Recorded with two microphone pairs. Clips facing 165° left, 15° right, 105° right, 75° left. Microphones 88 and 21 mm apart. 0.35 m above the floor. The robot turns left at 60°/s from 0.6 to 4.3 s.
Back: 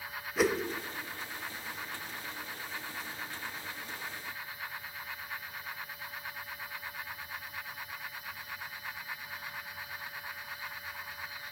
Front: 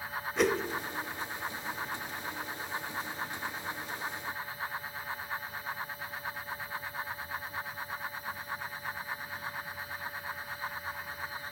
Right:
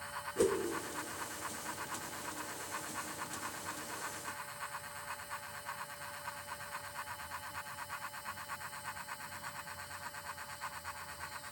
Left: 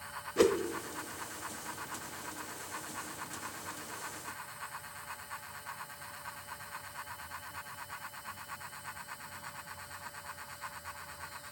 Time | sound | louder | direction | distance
0.4 | a whoosh | even, left 5 dB | 85° left | 0.9 m